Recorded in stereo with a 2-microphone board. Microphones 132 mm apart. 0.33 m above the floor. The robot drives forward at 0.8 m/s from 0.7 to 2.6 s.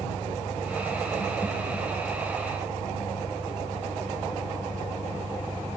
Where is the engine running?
65° left (ahead or behind); by 5.8 s 60° left (ahead or behind).